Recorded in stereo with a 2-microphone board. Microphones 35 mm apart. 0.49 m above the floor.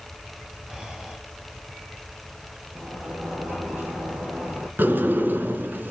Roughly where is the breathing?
Right.